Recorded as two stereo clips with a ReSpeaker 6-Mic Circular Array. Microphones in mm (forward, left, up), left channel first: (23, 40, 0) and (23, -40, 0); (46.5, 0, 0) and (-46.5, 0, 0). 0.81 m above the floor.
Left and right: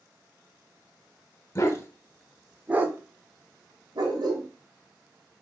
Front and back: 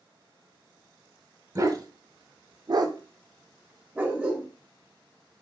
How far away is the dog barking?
About 0.8 m.